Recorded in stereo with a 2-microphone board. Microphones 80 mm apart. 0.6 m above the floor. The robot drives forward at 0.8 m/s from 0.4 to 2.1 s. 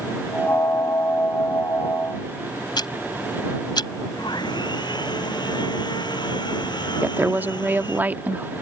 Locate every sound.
2.8 s ticking: 70° left (ahead or behind)
4.2 s sawing: 70° left (ahead or behind)
7.0 s a woman speaking: 25° right (ahead or behind)